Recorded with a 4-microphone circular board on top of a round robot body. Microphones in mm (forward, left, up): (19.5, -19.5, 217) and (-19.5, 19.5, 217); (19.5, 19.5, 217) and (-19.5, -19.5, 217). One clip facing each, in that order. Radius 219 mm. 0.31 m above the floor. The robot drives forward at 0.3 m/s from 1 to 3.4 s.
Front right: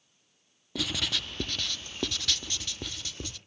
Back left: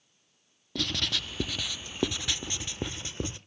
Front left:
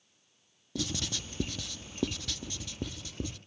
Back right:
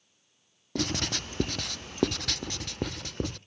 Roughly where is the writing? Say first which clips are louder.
Even, back right 5 dB; behind right.